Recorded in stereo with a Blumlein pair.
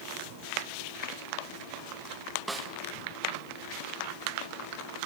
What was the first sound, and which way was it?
A snare drum, 10° right.